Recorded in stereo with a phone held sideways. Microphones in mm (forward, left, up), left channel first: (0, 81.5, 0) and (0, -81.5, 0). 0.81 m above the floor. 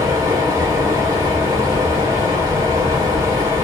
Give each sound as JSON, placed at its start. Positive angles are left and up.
{"t": 0.0, "sound": "a fan", "side_deg": -20, "distance_m": 1.0}